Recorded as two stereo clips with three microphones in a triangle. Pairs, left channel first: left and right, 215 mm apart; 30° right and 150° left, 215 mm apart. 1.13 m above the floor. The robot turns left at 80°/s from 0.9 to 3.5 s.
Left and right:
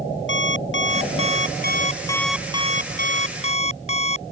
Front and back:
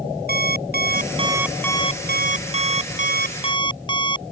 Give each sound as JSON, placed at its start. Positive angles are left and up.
{"t": 0.3, "sound": "an alarm clock", "azimuth_deg": 110}